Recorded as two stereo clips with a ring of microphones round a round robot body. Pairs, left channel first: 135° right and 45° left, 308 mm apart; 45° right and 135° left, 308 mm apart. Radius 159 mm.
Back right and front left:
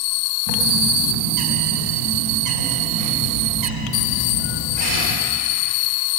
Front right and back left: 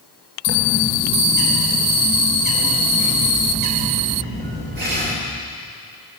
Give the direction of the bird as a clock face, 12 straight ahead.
10 o'clock.